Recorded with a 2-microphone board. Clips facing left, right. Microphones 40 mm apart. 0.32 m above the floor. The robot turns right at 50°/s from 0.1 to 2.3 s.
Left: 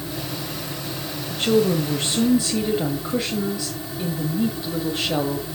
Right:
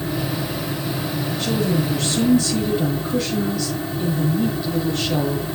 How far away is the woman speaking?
About 1.4 m.